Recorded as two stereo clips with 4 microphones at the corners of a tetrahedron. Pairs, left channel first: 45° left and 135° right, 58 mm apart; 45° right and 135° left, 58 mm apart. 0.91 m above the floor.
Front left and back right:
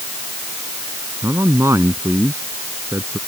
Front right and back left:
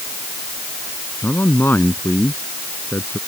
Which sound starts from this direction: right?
A man speaking, at 1.2 s.